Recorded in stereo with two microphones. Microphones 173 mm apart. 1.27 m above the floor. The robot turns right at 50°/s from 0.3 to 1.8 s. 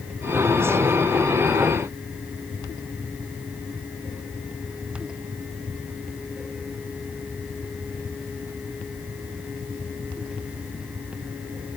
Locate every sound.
Only background noise.